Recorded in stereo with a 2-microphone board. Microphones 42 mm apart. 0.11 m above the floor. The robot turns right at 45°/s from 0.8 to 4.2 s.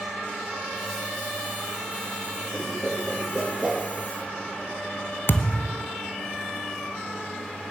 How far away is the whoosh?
About 2.5 m.